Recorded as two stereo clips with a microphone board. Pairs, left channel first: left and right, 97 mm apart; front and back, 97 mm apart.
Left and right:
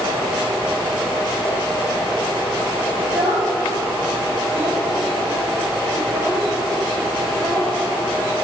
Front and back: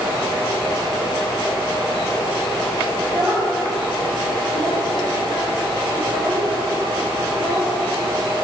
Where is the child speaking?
120° right, 3 m; by 7.7 s 165° right, 5 m.